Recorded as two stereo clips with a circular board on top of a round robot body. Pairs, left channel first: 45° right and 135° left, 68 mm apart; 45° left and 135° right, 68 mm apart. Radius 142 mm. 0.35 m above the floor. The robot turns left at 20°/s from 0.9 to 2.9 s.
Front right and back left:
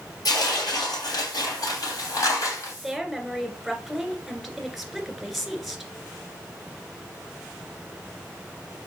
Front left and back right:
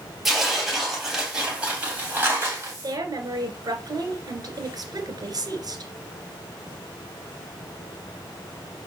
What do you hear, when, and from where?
0.2 s tearing paper: 45° right, 3 m; by 2.7 s 80° right, 3 m
2.8 s a woman speaking: 130° right, 2.5 m; by 5.9 s 135° right, 2.5 m